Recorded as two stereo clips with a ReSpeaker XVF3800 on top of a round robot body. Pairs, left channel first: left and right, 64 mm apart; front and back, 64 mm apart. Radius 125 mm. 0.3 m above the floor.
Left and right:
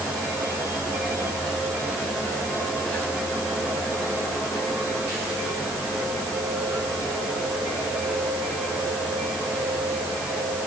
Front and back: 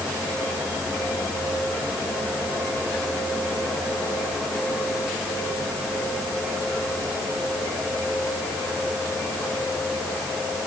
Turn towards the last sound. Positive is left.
No sound to turn to.